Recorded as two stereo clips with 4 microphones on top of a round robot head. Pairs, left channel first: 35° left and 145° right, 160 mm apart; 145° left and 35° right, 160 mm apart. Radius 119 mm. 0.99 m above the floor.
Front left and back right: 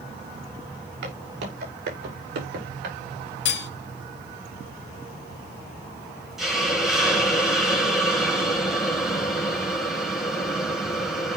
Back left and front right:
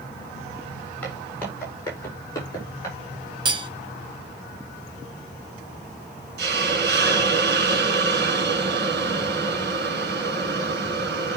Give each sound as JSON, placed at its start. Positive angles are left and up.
{"t": 1.0, "sound": "footsteps", "azimuth_deg": -135, "distance_m": 10.0}
{"t": 3.5, "sound": "cutlery clinking", "azimuth_deg": 25, "distance_m": 0.9}
{"t": 6.4, "sound": "a hiss", "azimuth_deg": -55, "distance_m": 2.5}